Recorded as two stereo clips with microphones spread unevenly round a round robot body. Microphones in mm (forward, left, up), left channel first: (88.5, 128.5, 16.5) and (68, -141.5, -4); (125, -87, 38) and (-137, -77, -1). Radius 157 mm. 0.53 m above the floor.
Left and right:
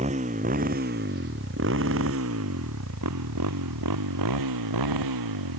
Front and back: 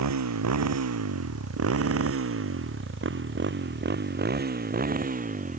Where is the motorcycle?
165° right; by 5.6 s 120° right.